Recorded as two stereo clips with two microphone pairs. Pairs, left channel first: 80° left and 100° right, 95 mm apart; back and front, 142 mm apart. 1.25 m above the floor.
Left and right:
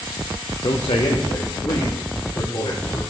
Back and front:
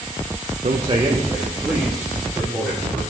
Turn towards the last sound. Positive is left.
turn(degrees=85)